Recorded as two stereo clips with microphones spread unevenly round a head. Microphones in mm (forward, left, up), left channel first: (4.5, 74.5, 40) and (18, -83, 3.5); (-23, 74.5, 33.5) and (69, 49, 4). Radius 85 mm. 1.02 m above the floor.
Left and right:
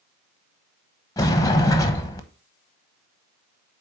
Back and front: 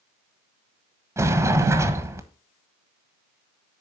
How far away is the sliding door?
About 1.0 m.